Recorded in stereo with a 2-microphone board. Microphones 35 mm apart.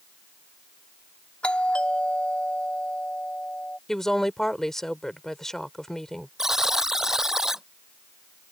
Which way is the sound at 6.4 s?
15° right (ahead or behind).